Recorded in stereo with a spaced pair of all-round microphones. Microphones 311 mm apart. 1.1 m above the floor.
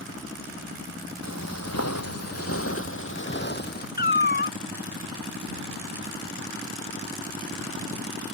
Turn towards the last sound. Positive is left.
turn(degrees=30)  # may be behind; listen again after turning